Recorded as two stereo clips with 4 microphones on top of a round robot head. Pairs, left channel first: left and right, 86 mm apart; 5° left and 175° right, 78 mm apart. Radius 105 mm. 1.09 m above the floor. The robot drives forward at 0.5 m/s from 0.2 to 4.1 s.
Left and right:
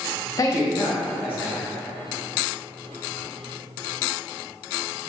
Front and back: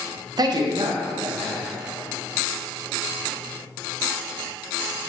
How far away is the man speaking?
About 0.5 m.